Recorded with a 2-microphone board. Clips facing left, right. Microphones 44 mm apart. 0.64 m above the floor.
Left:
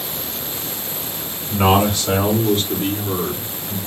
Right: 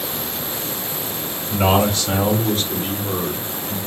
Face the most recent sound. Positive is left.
turn(degrees=30)  # may be behind; listen again after turning